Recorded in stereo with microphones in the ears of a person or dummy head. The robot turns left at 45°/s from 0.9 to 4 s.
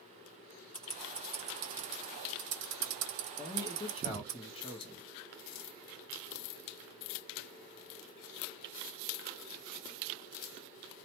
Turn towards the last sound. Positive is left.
turn(degrees=25)  # may be behind; listen again after turning